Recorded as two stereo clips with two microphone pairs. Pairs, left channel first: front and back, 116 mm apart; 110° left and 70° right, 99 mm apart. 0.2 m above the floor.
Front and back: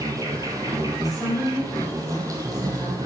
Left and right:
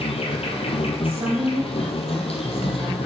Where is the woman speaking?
95° right, 3 m.